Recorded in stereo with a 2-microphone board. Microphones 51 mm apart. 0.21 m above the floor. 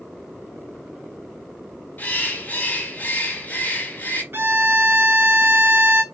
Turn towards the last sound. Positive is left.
turn(degrees=-50)  # may be behind; listen again after turning